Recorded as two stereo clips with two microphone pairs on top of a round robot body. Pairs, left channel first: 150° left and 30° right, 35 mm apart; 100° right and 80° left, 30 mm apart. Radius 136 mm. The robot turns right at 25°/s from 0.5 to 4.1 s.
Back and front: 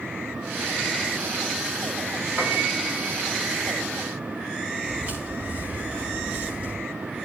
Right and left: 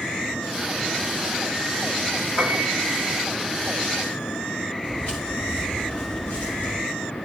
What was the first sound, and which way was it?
A piano, 145° right.